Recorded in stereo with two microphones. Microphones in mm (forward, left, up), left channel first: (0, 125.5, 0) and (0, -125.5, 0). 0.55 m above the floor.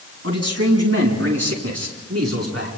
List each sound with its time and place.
0.2 s a man speaking: 75° right (ahead or behind), 6 m; by 2.7 s 80° right, 8.5 m